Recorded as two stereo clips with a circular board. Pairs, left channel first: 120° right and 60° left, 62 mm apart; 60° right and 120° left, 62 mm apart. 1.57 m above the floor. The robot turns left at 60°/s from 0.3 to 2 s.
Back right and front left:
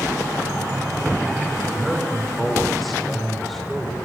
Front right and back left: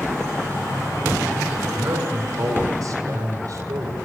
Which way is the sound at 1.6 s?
175° left.